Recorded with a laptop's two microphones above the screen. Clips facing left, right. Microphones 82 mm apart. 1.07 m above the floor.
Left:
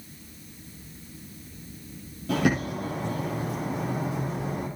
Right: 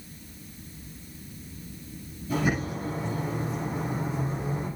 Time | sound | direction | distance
2.3 | a bird | 85° left | 8.5 m